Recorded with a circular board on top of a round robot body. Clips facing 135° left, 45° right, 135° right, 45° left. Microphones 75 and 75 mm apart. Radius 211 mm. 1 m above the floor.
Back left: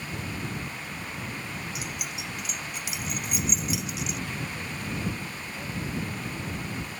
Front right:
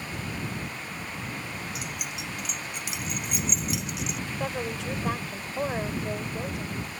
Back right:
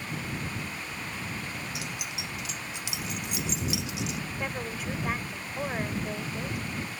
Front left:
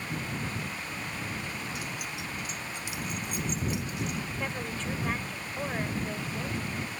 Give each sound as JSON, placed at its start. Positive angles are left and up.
{"t": 1.8, "sound": "keys jangling", "azimuth_deg": -135}
{"t": 4.3, "sound": "a woman speaking", "azimuth_deg": -50}